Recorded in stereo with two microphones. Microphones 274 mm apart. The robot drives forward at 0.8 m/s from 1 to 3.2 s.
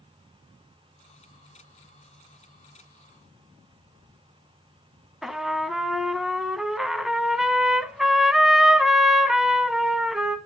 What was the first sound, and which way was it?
A trumpet, centre (ahead or behind).